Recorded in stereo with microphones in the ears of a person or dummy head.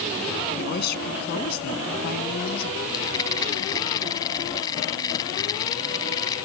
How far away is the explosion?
I don't hear an explosion.